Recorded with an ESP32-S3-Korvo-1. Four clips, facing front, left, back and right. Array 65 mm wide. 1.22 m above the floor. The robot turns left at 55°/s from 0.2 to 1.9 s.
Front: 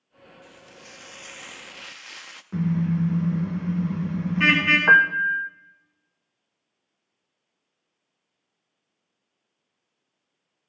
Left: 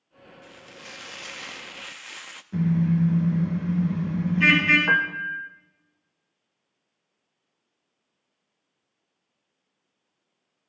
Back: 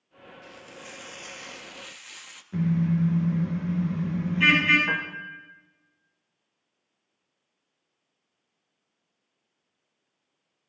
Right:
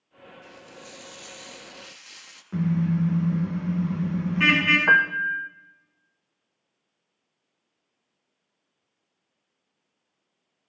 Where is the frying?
130° left, 0.8 m; by 2.4 s 50° left, 0.8 m.